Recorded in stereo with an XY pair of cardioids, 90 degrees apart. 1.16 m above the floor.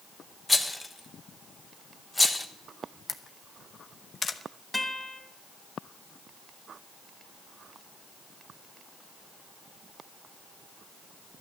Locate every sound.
0.5 s a rattle: 15° left, 1.1 m
3.1 s a camera shutter: 40° left, 0.9 m
4.7 s a guitar: 5° left, 2.5 m